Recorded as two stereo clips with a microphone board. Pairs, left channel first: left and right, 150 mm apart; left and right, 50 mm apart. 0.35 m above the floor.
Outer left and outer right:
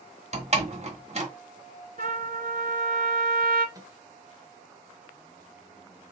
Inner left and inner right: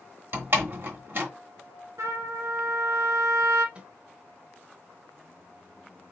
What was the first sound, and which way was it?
A door slam, 50° right (ahead or behind).